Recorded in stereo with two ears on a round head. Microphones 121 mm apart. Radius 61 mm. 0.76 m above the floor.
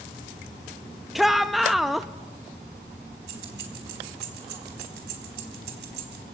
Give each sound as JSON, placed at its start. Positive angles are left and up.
{"t": 1.1, "sound": "a shout", "side_deg": 0, "distance_m": 0.6}
{"t": 3.3, "sound": "keys jangling", "side_deg": -85, "distance_m": 4.5}